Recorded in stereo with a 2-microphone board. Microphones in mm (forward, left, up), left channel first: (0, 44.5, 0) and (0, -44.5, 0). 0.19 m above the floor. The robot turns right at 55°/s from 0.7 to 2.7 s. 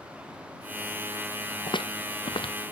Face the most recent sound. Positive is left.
turn(degrees=65)  # may be behind; listen again after turning